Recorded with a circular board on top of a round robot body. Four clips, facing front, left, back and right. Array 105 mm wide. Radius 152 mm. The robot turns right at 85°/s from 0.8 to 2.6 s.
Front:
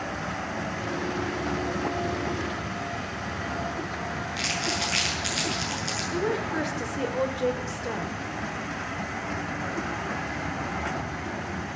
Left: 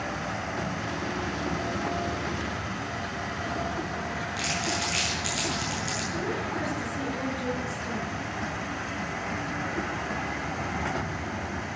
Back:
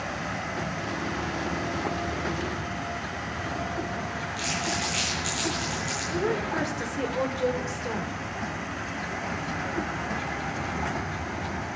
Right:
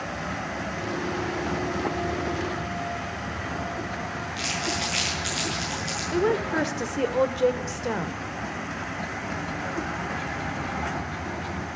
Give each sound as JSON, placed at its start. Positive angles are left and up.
{"t": 4.4, "sound": "crumpling", "azimuth_deg": -20, "distance_m": 8.0}
{"t": 6.1, "sound": "a woman speaking", "azimuth_deg": -90, "distance_m": 2.5}